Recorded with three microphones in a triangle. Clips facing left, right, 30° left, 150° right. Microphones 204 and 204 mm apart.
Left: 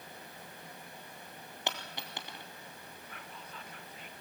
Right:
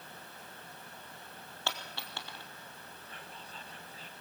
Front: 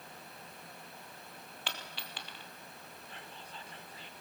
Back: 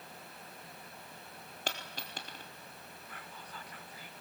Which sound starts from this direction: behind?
A dropped coin, at 1.7 s.